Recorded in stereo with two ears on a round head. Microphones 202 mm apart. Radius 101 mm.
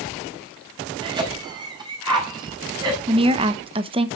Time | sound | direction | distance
1.0 | a cough | 20° right (ahead or behind) | 5.5 m
3.1 | a woman speaking | 25° right (ahead or behind) | 0.9 m